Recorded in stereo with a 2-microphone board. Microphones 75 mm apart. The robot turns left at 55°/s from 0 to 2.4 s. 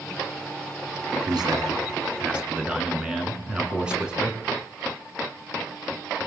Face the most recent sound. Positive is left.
turn(degrees=-165)